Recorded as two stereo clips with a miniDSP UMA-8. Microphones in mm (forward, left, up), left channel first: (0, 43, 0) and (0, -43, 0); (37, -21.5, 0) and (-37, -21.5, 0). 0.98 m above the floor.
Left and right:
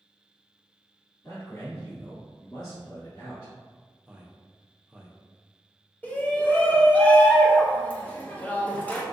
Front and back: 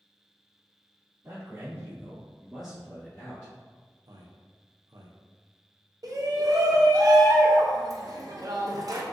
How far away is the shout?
About 0.7 m.